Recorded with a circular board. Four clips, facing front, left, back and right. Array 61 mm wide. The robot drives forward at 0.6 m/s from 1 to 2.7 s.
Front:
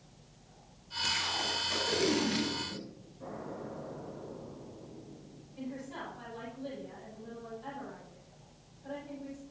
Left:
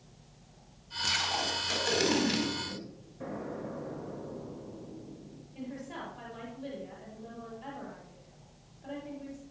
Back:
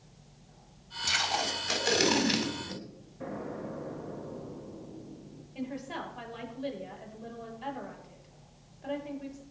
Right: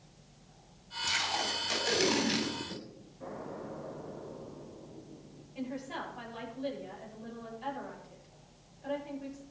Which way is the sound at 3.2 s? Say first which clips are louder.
Left 3 dB, back 4 dB; 145° left.